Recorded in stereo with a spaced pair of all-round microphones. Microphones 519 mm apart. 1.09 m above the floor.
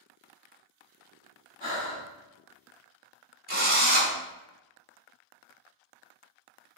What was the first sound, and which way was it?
Breathing, 55° left (ahead or behind).